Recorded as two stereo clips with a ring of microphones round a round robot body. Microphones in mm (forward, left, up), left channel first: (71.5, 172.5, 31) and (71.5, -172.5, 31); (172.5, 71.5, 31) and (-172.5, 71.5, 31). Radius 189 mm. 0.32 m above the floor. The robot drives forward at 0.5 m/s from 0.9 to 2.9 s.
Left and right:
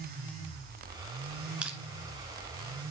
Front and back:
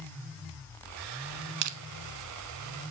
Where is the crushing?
175° right, 1.3 m.